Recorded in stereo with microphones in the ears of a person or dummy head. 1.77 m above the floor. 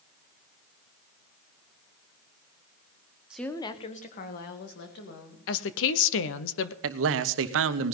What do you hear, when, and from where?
3.3 s a woman speaking: centre (ahead or behind), 0.9 m; by 5.4 s 60° left (ahead or behind), 3 m
5.5 s a woman speaking: 75° left (ahead or behind), 1.0 m
6.8 s a man speaking: 70° right (ahead or behind), 1.0 m